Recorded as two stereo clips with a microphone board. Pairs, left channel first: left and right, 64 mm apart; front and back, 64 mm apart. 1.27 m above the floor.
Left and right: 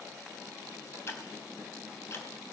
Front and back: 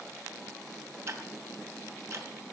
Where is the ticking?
135° left, 2.5 m.